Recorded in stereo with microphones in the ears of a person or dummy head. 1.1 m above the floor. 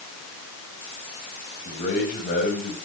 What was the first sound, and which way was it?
A man speaking, 40° left (ahead or behind).